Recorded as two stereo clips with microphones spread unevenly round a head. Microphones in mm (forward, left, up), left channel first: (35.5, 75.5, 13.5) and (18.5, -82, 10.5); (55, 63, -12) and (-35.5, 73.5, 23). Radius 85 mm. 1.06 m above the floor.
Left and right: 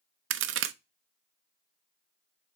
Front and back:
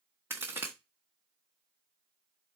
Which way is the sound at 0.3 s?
110° right.